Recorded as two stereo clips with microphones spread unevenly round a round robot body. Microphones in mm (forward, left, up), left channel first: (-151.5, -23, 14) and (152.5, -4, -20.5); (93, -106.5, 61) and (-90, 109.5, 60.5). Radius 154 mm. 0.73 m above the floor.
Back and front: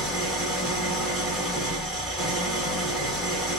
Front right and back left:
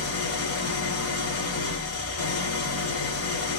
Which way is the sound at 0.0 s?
85° right.